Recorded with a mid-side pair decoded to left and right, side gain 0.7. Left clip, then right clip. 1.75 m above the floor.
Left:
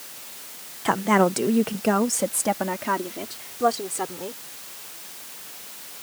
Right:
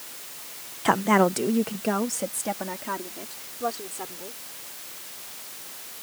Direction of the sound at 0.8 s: 10° right.